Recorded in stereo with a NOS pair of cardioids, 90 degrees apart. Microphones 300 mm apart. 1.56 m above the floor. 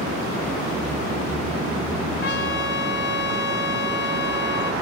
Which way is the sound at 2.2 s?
40° left.